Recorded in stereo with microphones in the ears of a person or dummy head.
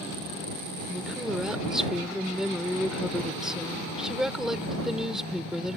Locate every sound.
0.9 s a woman speaking: centre (ahead or behind)